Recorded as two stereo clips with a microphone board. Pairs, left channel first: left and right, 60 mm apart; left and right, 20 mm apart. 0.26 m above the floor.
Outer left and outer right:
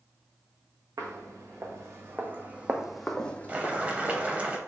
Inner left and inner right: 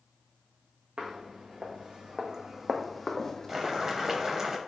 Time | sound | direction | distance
1.0 | footsteps | 60° right (ahead or behind) | 1.2 m
3.5 | boiling | 20° right (ahead or behind) | 0.6 m